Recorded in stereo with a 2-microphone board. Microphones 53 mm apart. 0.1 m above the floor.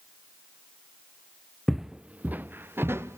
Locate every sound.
1.7 s footsteps: centre (ahead or behind), 0.5 m; by 3.2 s 50° right (ahead or behind), 1.1 m